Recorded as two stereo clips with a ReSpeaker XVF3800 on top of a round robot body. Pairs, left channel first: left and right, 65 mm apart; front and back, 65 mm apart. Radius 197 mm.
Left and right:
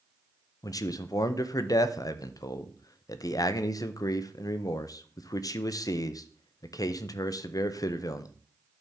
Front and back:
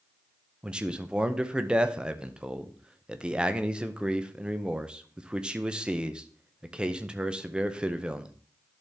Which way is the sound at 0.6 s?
105° left.